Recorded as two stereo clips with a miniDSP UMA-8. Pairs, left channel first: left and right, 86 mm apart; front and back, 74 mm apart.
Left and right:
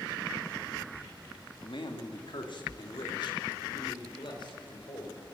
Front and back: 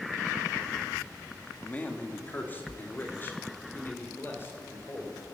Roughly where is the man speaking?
Left.